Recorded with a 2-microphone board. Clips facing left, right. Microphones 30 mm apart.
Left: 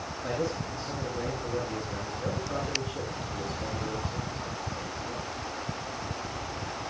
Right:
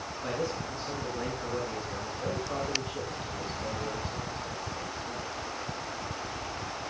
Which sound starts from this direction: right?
A man speaking, at 0.2 s.